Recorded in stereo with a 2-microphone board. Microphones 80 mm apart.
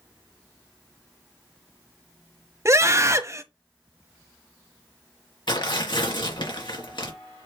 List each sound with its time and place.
2.6 s a scream: 40° right (ahead or behind), 1.3 m
5.5 s tearing paper: 70° left (ahead or behind), 3 m